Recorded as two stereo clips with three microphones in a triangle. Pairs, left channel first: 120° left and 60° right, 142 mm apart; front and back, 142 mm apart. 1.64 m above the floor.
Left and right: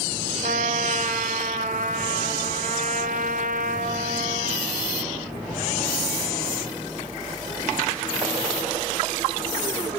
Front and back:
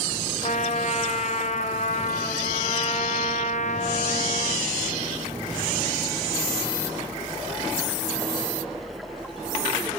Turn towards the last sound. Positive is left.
turn(degrees=-35)